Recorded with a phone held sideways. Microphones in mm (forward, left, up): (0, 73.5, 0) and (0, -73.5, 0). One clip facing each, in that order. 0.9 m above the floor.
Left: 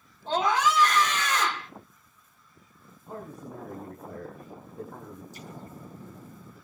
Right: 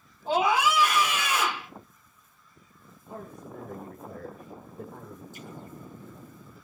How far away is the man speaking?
About 9 m.